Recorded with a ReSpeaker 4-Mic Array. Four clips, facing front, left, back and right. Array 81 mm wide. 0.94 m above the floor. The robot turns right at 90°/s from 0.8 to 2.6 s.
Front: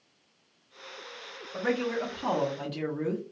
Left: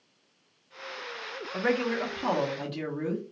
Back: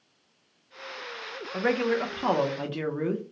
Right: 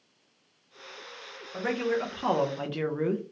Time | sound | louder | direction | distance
1.5 | a man speaking | left 1 dB, back 4 dB | 135° left | 0.6 m